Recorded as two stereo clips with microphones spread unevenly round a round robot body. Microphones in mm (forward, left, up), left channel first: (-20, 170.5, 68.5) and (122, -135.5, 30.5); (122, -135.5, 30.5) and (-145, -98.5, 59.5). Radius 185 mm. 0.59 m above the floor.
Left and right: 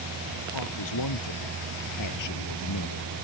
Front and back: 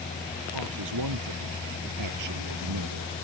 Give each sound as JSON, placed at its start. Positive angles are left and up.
{"t": 0.5, "sound": "a man speaking", "azimuth_deg": 150}